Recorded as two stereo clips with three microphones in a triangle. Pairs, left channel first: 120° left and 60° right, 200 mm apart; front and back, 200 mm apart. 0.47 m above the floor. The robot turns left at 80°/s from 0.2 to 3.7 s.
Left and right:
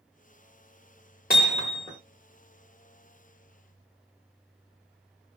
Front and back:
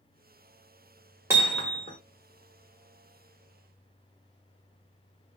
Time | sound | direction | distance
1.3 | hammering | 105° left | 1.2 m